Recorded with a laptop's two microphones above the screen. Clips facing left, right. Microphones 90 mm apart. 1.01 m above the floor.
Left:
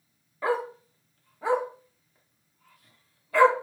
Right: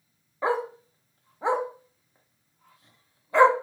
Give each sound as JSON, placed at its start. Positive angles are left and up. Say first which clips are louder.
{"t": 0.4, "sound": "a dog barking", "louder": "right 1 dB", "side_deg": -20, "distance_m": 0.6}